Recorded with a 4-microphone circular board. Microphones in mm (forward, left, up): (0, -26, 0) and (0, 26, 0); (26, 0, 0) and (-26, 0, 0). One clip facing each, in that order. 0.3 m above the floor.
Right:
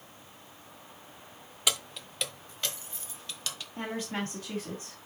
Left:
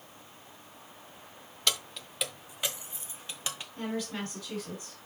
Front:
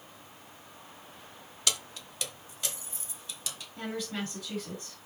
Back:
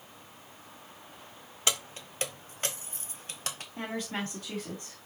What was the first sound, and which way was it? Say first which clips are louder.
Keys jangling: even, back 2 dB; 160° right.